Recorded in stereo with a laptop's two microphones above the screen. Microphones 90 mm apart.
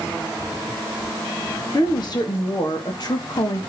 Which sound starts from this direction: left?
A woman speaking, at 1.7 s.